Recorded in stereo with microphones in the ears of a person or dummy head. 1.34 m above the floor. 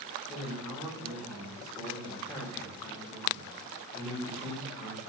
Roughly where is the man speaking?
Centre.